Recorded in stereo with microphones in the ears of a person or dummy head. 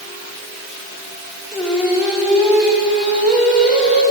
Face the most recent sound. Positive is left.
turn(degrees=-10)  # may be behind; listen again after turning